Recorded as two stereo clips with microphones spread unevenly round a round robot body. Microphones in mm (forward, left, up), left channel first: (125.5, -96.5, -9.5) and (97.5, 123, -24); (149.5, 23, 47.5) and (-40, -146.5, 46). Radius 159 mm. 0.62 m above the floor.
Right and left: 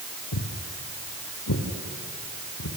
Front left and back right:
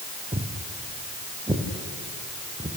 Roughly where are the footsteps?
Right.